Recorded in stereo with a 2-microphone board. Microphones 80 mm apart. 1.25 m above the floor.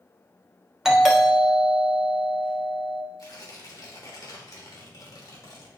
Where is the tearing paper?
50° left (ahead or behind), 1.7 m.